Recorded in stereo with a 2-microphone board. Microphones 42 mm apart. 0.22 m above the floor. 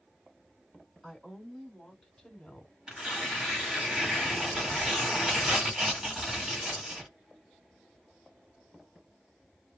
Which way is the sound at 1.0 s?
10° right (ahead or behind).